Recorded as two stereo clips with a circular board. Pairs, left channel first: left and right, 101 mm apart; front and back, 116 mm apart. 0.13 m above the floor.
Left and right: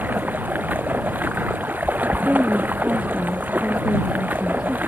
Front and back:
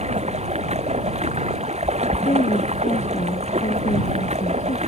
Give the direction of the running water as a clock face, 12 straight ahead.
5 o'clock.